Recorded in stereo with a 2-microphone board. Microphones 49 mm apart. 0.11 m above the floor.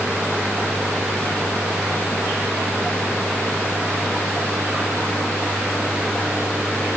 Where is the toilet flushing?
No toilet flushing in this recording.